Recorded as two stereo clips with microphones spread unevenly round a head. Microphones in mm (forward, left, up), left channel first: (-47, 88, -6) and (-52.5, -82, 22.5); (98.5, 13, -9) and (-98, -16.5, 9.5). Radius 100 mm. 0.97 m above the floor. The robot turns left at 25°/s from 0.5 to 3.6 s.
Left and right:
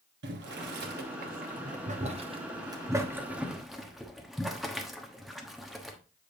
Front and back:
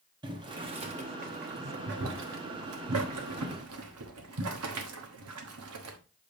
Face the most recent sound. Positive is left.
turn(degrees=180)